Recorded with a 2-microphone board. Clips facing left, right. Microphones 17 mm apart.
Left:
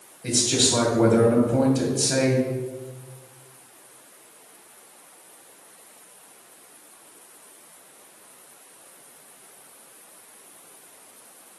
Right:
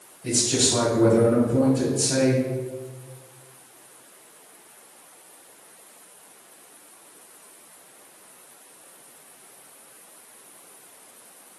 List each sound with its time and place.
0.2 s a man speaking: 65° left (ahead or behind), 2.5 m